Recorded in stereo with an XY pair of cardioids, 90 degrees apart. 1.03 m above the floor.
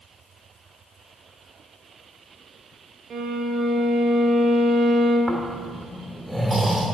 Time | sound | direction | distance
3.1 | a violin | 60° right | 0.9 m
5.3 | snoring | 30° right | 2 m